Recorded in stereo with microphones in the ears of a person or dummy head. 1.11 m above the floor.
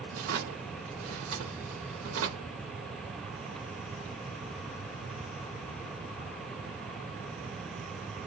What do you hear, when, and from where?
0.1 s a drawer: 75° right (ahead or behind), 1.8 m